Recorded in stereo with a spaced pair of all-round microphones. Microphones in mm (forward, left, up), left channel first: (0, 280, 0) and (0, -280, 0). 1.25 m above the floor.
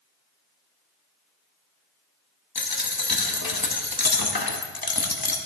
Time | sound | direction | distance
2.5 | a dropped coin | 40° left (ahead or behind) | 0.8 m